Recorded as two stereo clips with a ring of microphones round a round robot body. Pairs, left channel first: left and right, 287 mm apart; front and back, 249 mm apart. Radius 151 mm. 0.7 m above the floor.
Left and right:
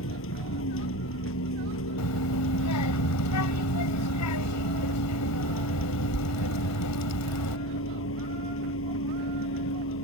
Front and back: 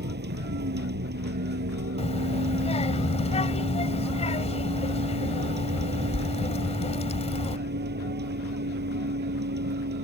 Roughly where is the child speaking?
Ahead left.